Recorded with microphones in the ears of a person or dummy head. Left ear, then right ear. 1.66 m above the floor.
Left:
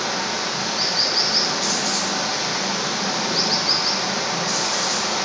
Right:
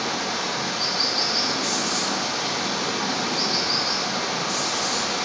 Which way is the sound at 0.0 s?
70° left (ahead or behind).